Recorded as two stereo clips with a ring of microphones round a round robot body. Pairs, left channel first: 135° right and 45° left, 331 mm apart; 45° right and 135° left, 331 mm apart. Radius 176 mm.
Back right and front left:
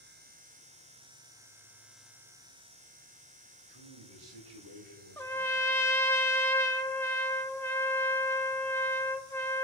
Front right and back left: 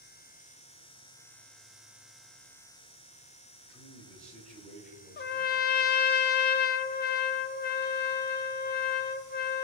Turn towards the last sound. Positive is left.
turn(degrees=-60)